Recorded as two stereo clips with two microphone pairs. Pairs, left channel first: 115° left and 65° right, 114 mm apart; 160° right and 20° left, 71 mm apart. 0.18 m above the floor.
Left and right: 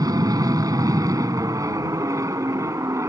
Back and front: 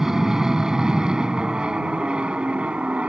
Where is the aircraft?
60° right; by 3.1 s 35° right.